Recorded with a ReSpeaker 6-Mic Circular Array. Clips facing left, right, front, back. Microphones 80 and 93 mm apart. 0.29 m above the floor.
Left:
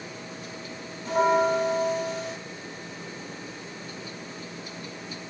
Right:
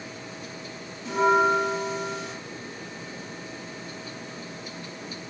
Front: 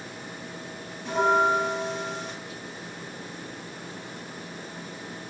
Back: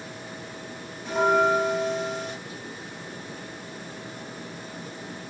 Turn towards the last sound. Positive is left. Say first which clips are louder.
# right 1 dB, back 1 dB
turn(degrees=90)